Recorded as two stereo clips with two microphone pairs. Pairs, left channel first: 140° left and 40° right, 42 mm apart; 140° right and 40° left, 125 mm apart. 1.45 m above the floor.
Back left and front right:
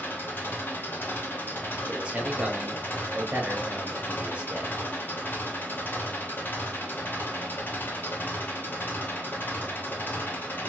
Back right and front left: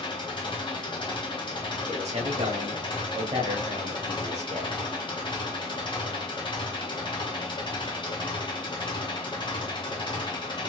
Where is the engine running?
175° left, 0.8 m.